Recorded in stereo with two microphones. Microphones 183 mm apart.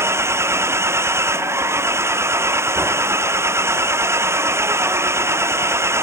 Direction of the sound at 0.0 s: 15° right (ahead or behind).